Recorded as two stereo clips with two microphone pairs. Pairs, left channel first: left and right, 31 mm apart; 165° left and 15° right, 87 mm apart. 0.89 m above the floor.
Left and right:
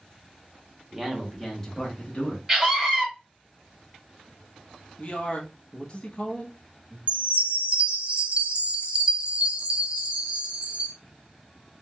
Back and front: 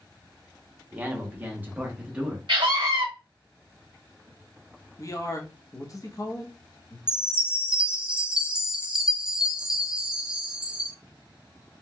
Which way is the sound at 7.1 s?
90° right.